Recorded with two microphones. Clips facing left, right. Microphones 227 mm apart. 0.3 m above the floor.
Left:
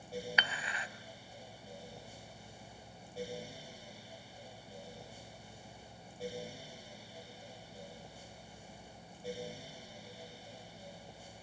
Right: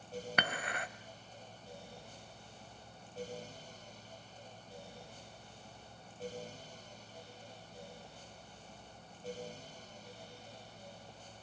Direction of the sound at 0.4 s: 55° right (ahead or behind).